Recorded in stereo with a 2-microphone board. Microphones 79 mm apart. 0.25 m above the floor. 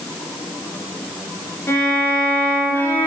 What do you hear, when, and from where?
1.7 s a violin: 35° left (ahead or behind), 1.8 m